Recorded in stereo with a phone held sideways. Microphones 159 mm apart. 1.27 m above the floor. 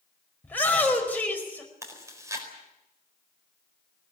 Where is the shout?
10° left (ahead or behind), 5.5 m.